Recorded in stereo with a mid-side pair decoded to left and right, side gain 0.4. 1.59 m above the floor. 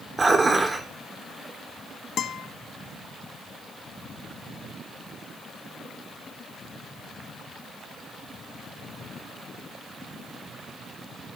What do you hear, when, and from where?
0.2 s dishes clattering: 35° right, 3.5 m
2.2 s a guitar: 60° left, 1.1 m